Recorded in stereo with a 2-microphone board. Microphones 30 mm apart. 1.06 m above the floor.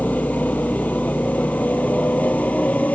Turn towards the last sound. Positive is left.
turn(degrees=60)  # may be behind; listen again after turning